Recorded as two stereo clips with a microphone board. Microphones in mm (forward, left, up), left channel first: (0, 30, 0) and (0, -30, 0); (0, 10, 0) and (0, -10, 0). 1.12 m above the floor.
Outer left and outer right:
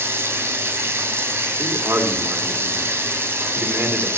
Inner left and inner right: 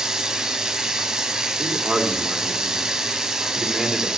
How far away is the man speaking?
About 2.5 m.